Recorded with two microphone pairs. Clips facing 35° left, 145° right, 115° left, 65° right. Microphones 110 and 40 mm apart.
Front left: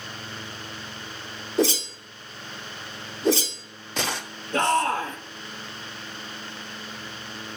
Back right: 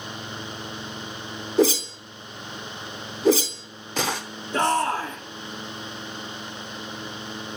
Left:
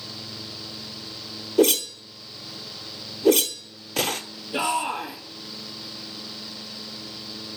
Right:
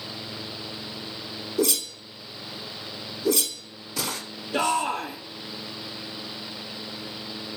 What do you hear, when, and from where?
1.6 s a whoosh: 125° left, 0.7 m
4.5 s a shout: 35° left, 3 m